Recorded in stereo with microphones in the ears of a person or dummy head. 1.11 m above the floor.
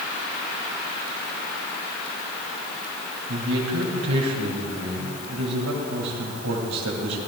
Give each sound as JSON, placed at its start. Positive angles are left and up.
{"t": 3.3, "sound": "a man speaking", "side_deg": -75, "distance_m": 2.5}